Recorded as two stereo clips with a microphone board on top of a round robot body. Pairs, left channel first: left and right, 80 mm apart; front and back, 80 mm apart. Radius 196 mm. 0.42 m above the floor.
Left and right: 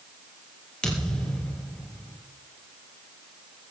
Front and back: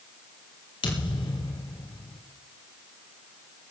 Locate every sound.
0.8 s a thud: 10° left, 3.5 m